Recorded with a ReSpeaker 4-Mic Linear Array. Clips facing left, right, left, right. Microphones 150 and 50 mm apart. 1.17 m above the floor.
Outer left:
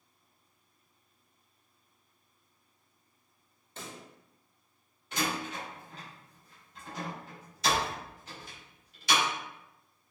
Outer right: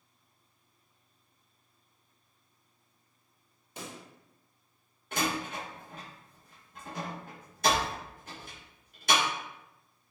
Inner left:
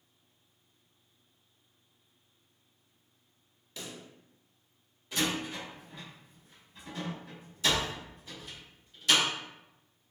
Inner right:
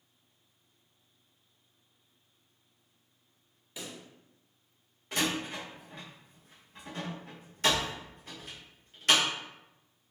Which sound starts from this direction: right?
A door slam, at 5.1 s.